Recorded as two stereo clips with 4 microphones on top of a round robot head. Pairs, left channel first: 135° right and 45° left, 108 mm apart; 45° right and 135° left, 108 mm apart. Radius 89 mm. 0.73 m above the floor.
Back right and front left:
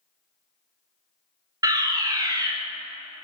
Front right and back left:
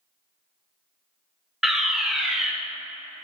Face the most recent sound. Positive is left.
turn(degrees=50)